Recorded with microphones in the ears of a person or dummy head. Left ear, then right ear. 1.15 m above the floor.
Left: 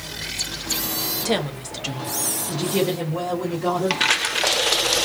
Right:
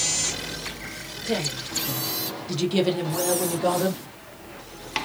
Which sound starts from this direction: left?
A woman speaking, at 1.2 s.